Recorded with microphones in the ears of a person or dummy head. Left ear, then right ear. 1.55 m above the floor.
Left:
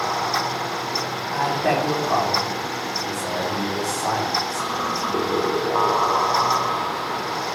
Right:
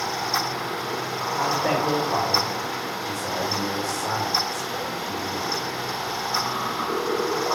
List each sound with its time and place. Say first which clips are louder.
1.3 s a man speaking: left 2 dB; 25° left (ahead or behind), 4.5 m